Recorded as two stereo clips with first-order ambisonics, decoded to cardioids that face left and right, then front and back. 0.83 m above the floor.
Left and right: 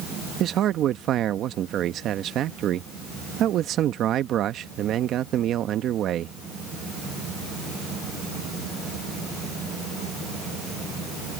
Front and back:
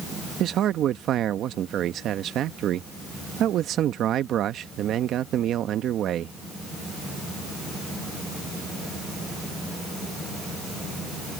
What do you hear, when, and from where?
0.4 s a man speaking: 135° right